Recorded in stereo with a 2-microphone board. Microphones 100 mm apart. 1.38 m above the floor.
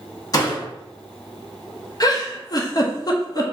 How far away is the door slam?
About 1.2 m.